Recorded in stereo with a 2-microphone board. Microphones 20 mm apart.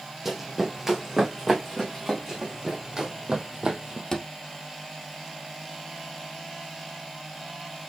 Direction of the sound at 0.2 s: 15° right (ahead or behind).